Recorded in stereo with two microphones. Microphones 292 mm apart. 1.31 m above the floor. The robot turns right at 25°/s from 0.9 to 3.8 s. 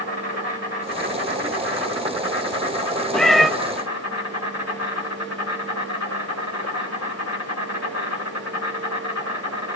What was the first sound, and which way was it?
An insect, 40° left.